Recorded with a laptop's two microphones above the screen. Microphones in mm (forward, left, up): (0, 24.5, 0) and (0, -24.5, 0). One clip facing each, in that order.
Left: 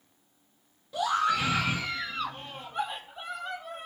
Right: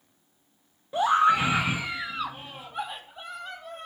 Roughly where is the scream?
Right.